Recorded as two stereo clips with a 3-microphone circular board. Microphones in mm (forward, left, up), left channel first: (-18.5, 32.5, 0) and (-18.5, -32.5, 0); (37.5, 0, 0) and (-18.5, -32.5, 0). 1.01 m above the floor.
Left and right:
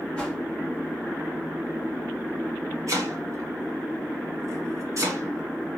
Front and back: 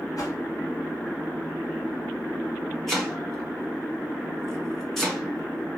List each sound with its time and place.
0.2 s a whoosh: 15° left, 1.0 m
2.9 s chopping: 55° right, 1.0 m